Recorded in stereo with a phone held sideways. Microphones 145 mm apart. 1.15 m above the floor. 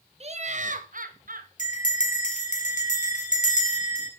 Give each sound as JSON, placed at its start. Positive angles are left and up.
{"t": 0.2, "sound": "laughter", "side_deg": -45, "distance_m": 1.0}
{"t": 1.6, "sound": "a bell", "side_deg": 55, "distance_m": 2.5}